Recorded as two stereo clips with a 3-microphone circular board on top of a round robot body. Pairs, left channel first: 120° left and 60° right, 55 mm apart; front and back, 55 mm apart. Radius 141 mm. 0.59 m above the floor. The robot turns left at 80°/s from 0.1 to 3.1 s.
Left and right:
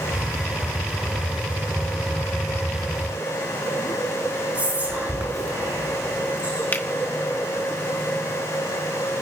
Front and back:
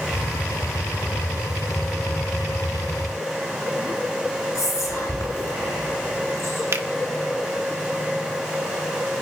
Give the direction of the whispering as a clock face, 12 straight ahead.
12 o'clock.